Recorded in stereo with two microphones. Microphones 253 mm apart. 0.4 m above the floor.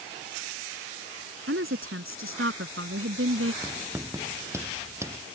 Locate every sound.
1.5 s a woman speaking: 60° right (ahead or behind)
3.6 s writing: 10° right (ahead or behind)